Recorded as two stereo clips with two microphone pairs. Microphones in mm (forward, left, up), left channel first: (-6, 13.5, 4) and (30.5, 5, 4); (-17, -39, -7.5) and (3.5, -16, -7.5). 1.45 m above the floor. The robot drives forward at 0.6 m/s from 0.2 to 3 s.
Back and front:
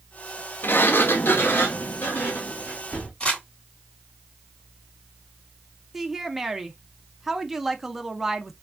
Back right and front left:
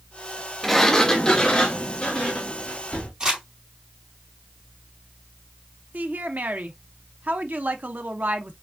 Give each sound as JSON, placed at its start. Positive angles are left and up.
{"t": 0.6, "sound": "a sliding door", "azimuth_deg": 145, "distance_m": 0.5}
{"t": 3.2, "sound": "crumpling", "azimuth_deg": 110, "distance_m": 2.5}
{"t": 5.9, "sound": "a woman speaking", "azimuth_deg": 70, "distance_m": 0.7}